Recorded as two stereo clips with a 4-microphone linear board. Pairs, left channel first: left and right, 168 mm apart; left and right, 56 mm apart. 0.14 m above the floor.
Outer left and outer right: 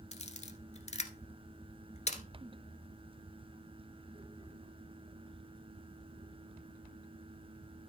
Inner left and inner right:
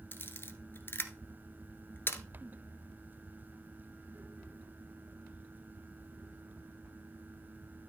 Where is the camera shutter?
45° left (ahead or behind), 1.1 m.